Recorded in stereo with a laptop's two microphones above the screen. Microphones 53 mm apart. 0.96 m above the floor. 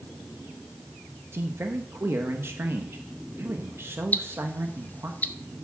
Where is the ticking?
35° left (ahead or behind), 0.7 m.